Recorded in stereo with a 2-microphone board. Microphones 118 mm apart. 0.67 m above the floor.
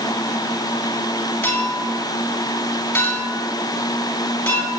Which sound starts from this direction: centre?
A clink, at 1.4 s.